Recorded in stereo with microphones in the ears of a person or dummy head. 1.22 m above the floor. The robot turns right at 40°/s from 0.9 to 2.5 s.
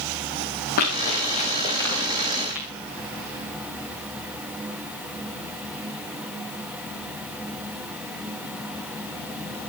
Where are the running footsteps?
45° left (ahead or behind), 8.5 m; by 2.7 s 10° right (ahead or behind), 10 m.